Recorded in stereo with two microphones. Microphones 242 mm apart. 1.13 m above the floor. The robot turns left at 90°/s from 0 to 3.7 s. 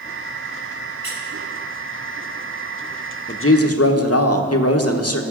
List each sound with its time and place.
1.0 s a squeak: 45° left (ahead or behind), 4.5 m; by 1.2 s 25° left (ahead or behind), 4.5 m
3.3 s a woman speaking: 130° left, 0.9 m; by 5.2 s 95° left, 0.9 m